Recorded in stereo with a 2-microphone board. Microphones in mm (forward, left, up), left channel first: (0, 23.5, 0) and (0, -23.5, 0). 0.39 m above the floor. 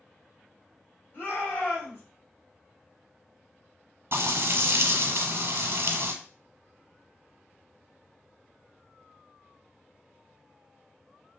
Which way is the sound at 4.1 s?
60° right (ahead or behind).